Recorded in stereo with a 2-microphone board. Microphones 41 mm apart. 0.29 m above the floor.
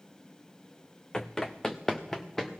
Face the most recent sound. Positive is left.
turn(degrees=10)  # may be behind; listen again after turning